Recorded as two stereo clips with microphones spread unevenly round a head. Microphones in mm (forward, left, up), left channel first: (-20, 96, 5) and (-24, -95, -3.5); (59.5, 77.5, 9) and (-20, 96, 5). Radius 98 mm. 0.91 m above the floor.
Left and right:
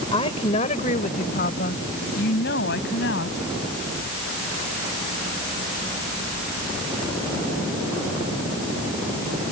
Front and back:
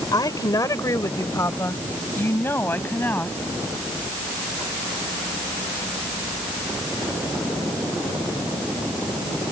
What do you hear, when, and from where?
0.1 s a woman speaking: 25° left; by 3.4 s 55° left